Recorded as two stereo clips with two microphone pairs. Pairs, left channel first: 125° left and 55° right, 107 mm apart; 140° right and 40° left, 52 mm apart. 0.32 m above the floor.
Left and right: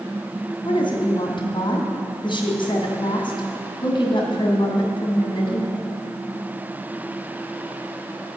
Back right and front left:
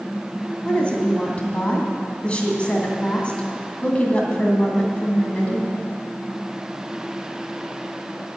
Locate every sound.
0.7 s a woman speaking: 160° left, 2.5 m